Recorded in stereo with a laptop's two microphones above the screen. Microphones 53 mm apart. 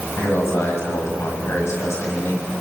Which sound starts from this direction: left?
A man speaking, at 0.2 s.